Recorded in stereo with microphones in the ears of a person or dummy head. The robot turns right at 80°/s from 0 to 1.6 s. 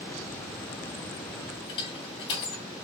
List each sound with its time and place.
1.7 s crushing: 30° left (ahead or behind), 3.5 m